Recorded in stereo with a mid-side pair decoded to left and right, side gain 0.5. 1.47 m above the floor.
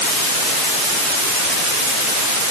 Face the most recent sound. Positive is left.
No sound to turn to.